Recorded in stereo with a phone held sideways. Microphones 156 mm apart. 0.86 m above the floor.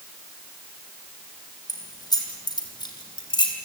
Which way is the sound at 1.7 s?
25° left (ahead or behind).